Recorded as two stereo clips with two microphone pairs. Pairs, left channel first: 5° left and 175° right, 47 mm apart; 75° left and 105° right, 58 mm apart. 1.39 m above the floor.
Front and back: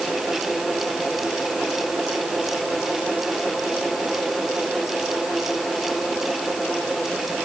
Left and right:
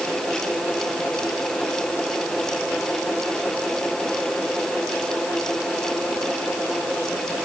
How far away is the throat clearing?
I don't hear throat clearing.